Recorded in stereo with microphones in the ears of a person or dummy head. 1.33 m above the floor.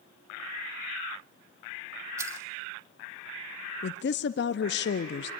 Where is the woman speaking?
60° left (ahead or behind), 0.6 m.